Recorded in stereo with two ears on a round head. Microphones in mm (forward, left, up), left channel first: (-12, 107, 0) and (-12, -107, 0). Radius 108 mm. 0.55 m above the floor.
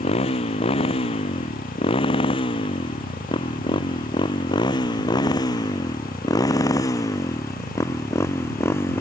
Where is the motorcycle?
25° left (ahead or behind); by 9.0 s 10° left (ahead or behind).